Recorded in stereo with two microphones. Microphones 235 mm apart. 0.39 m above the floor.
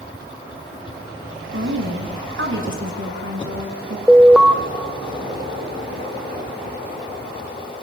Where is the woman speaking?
60° right (ahead or behind), 4 m.